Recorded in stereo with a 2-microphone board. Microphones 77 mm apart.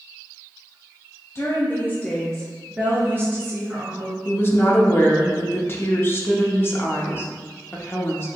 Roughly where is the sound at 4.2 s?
Left.